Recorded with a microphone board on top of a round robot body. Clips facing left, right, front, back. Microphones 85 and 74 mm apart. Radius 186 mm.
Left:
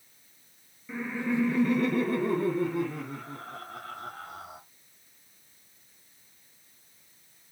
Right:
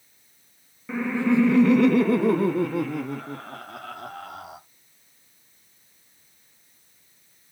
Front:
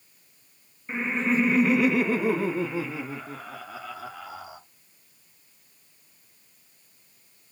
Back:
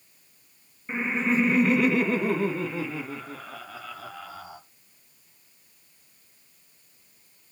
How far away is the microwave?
I don't hear a microwave.